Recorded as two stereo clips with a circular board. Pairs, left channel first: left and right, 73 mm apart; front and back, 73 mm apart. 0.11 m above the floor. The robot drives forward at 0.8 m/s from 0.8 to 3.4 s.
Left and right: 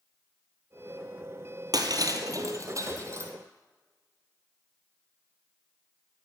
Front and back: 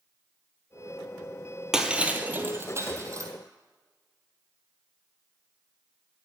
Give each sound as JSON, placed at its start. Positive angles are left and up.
{"t": 1.7, "sound": "breaking glass", "azimuth_deg": -100, "distance_m": 1.4}